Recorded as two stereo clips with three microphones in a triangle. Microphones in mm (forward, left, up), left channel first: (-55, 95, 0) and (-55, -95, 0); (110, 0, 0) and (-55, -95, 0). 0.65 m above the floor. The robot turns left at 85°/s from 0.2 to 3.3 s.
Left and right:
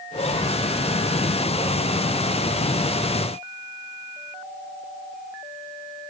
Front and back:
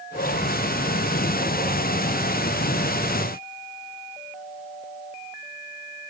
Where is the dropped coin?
I don't hear a dropped coin.